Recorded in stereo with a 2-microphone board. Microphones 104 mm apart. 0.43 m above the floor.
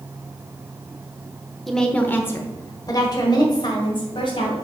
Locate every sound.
1.7 s a woman speaking: centre (ahead or behind), 0.8 m; by 4.5 s 55° left (ahead or behind), 2 m